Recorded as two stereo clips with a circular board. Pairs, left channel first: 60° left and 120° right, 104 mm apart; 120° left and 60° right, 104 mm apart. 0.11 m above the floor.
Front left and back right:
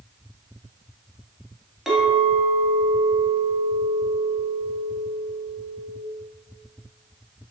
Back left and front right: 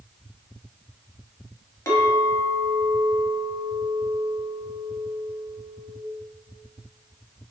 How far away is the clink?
About 1.0 m.